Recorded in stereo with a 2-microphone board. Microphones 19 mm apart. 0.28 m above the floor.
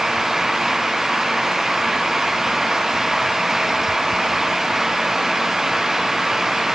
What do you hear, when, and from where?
Only background noise.